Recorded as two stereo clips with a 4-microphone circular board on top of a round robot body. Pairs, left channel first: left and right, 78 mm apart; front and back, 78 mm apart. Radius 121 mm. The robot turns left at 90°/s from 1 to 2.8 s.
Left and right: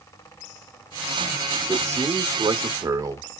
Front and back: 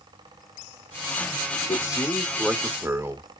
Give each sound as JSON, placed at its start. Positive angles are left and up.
{"t": 1.7, "sound": "a man speaking", "azimuth_deg": -25, "distance_m": 1.5}